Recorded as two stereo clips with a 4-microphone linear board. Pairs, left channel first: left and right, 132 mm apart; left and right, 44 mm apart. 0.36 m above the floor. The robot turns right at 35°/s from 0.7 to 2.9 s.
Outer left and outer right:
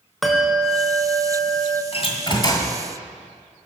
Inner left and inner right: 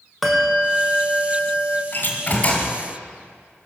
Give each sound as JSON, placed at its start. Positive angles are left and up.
{"t": 0.2, "sound": "a bell", "azimuth_deg": 0, "distance_m": 1.4}
{"t": 1.9, "sound": "a door slam", "side_deg": 50, "distance_m": 1.9}